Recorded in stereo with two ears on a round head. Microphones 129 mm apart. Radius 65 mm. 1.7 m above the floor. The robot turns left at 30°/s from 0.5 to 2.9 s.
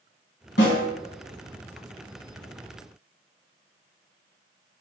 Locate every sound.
0.6 s a snare drum: 85° left, 1.4 m; by 0.8 s 80° left, 1.4 m